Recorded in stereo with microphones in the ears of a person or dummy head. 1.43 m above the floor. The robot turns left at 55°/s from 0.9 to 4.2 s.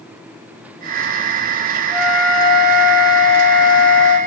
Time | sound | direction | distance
1.9 | a flute | 125° right | 0.9 m